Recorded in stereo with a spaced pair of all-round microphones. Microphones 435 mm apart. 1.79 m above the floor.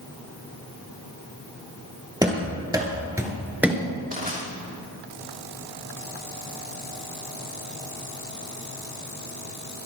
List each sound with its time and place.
2.2 s running footsteps: 10° right (ahead or behind), 2.5 m; by 3.8 s centre (ahead or behind), 1.7 m
4.1 s crushing: 20° right (ahead or behind), 3.5 m